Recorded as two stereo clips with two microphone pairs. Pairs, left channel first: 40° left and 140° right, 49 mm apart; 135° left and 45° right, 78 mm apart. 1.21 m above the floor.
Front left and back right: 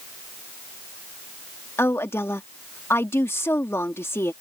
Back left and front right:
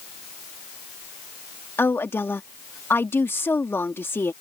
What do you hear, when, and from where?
1.8 s a woman speaking: 75° left